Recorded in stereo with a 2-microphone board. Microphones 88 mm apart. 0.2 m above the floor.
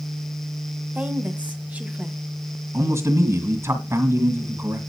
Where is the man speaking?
35° right (ahead or behind), 2 m.